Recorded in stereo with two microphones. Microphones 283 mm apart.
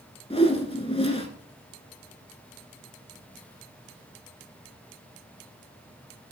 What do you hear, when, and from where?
0.3 s a whoosh: 20° left (ahead or behind), 0.8 m